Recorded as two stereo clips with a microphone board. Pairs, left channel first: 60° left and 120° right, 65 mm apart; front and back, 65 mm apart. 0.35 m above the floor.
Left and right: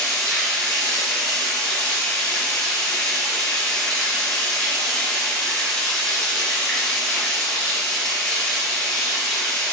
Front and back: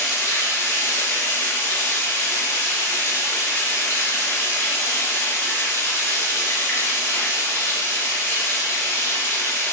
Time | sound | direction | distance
0.0 | running water | 5° right | 0.8 m